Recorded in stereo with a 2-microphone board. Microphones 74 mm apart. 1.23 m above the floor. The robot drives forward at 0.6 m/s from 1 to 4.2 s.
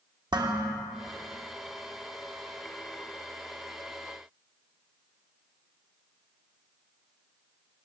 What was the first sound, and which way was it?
Dishes clattering, 75° right (ahead or behind).